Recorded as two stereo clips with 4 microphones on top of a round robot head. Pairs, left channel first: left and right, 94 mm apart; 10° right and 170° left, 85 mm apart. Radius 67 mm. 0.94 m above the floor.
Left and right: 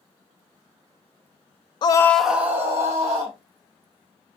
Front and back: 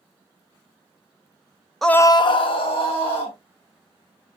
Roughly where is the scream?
Left.